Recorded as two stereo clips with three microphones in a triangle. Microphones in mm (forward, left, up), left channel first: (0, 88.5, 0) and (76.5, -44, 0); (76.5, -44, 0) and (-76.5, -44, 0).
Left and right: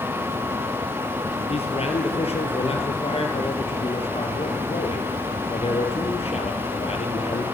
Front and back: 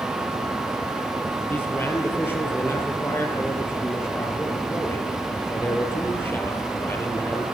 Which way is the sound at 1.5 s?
75° left.